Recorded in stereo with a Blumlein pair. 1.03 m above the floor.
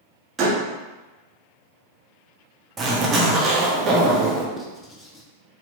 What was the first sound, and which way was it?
A door slam, 20° right.